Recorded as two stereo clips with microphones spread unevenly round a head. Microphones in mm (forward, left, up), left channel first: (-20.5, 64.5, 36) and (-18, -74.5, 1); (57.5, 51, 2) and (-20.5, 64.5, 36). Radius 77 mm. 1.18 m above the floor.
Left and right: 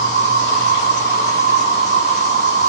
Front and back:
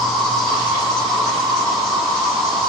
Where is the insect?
15° left, 1.4 m.